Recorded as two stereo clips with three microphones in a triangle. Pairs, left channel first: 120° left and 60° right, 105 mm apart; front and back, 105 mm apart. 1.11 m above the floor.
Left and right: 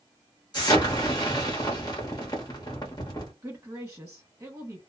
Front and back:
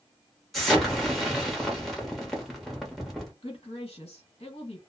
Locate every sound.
0.5 s an explosion: 90° left, 1.0 m
3.4 s a woman speaking: straight ahead, 1.4 m